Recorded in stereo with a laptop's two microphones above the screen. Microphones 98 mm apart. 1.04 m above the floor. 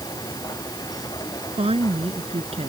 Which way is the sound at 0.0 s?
40° left (ahead or behind).